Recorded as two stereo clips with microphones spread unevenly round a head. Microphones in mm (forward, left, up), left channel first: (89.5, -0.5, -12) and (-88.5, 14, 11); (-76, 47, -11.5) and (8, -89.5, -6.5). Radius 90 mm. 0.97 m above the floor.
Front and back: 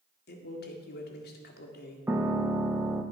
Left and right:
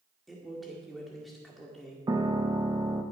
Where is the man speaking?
30° left, 1.8 m.